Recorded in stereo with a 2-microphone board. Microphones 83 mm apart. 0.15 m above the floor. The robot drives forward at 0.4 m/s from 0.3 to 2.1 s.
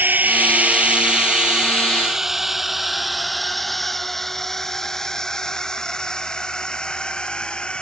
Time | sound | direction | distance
0.0 | a drone | 25° right (ahead or behind) | ?